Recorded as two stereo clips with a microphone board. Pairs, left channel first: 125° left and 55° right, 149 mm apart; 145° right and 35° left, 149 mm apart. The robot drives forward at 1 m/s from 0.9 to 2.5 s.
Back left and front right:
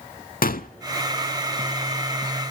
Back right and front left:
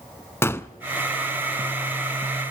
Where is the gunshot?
140° left, 0.5 m.